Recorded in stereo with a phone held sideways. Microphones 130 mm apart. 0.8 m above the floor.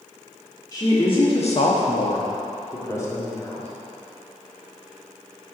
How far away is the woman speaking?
About 1.9 m.